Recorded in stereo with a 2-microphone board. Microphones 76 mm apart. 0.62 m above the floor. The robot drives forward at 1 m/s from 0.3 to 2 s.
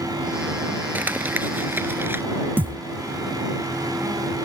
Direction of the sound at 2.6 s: 25° right (ahead or behind).